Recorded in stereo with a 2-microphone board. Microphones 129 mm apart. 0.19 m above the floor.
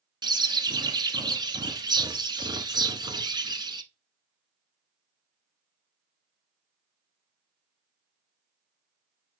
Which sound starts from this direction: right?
A bird, at 0.2 s.